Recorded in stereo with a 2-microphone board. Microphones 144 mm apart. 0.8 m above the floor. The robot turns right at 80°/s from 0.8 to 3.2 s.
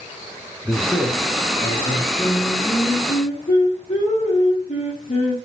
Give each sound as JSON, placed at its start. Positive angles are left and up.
{"t": 0.7, "sound": "a man speaking", "azimuth_deg": -10, "distance_m": 0.6}
{"t": 2.2, "sound": "singing", "azimuth_deg": -5, "distance_m": 0.9}